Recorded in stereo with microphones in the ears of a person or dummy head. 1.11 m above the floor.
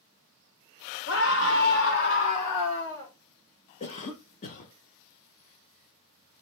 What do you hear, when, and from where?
1.1 s a scream: 60° left (ahead or behind), 1.5 m; by 3.1 s 10° left (ahead or behind), 1.1 m
3.8 s a cough: 35° left (ahead or behind), 0.7 m